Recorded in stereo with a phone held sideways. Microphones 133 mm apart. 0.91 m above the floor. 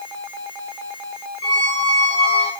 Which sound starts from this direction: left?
A squeak, at 1.4 s.